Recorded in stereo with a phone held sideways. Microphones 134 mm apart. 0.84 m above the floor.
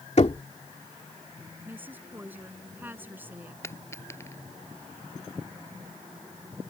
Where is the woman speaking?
15° right (ahead or behind).